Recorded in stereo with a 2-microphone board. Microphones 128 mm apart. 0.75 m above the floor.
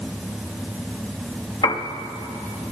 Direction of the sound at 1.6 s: 45° left (ahead or behind).